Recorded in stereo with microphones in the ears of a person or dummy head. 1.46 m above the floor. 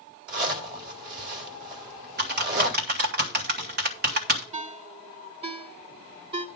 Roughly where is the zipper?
Right.